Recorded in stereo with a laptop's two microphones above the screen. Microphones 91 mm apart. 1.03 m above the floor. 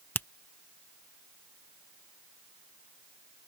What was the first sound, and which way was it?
A finger snap, 20° left (ahead or behind).